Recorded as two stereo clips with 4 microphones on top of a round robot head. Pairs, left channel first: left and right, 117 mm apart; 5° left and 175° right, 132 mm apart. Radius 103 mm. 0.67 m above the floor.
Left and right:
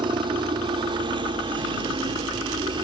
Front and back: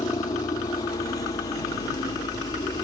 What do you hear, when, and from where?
0.0 s a helicopter: 55° right